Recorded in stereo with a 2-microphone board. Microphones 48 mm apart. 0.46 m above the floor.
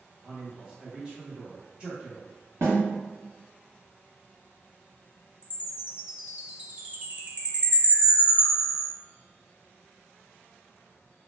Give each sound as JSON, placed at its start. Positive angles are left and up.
{"t": 0.2, "sound": "a man speaking", "side_deg": -5, "distance_m": 1.0}
{"t": 2.6, "sound": "a snare drum", "side_deg": -85, "distance_m": 1.2}
{"t": 5.4, "sound": "a chime", "side_deg": -30, "distance_m": 0.6}